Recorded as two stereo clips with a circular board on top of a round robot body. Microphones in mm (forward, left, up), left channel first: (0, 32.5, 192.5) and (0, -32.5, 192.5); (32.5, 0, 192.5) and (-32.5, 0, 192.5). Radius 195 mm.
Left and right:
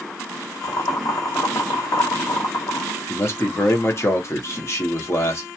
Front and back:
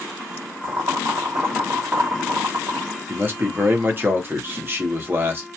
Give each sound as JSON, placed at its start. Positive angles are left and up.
{"t": 0.6, "sound": "boiling", "azimuth_deg": 125, "distance_m": 0.7}
{"t": 3.1, "sound": "a man speaking", "azimuth_deg": 130, "distance_m": 1.0}